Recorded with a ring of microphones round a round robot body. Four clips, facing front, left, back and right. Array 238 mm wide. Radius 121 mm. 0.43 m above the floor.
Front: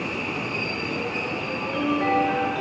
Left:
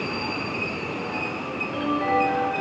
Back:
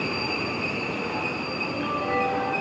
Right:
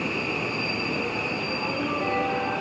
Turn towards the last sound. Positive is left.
No sound to turn to.